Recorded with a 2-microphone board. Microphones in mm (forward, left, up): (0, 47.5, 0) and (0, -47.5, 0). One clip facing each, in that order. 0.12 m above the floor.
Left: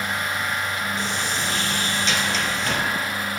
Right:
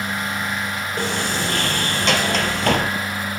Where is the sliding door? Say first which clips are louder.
Right 3 dB; 75° right (ahead or behind), 0.6 m.